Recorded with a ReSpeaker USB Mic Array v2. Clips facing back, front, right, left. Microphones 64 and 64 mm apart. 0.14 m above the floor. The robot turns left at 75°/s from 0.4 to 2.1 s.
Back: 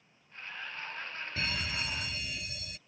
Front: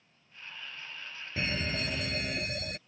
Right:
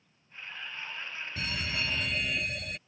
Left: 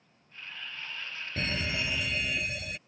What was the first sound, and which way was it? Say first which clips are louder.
A fire alarm: front 3 dB, left 3 dB; 55° left.